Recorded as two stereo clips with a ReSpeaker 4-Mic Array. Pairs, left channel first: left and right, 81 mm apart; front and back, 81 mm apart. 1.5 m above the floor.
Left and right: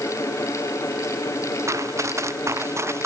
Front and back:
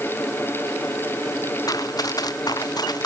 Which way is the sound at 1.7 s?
40° right.